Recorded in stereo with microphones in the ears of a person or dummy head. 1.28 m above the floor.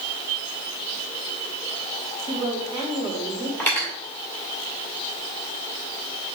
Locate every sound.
2.3 s a woman speaking: 20° right (ahead or behind), 2.5 m
3.6 s cutlery clinking: 10° left (ahead or behind), 2 m